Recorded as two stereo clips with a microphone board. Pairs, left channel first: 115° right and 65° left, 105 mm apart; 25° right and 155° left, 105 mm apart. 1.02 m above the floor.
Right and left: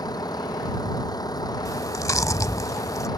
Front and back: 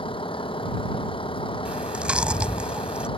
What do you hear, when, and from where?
0.0 s a vehicle: 60° right
1.6 s chewing: 130° right